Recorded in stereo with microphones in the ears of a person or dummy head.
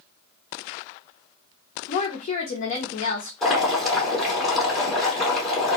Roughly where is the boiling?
Centre.